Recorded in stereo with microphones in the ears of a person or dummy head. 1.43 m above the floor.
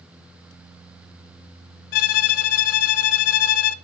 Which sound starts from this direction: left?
A violin, at 1.9 s.